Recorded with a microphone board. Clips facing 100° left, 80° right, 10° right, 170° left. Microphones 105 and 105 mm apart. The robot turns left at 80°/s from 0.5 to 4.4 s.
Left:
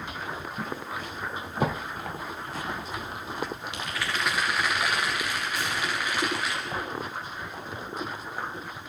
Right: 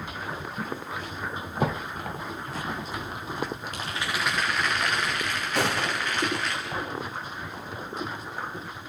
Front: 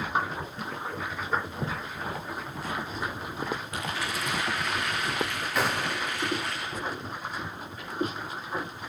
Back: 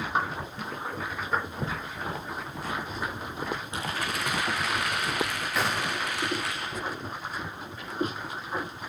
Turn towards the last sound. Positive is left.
turn(degrees=-100)